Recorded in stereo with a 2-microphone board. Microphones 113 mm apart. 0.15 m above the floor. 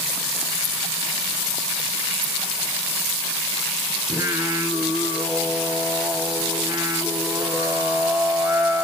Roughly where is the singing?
Right.